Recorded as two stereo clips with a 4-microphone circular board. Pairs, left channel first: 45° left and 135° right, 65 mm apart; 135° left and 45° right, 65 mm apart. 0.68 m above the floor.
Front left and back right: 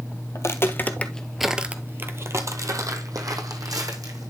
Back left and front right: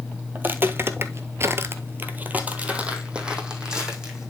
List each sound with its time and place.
0.3 s footsteps: 10° left, 1.2 m; by 4.3 s 125° right, 2.5 m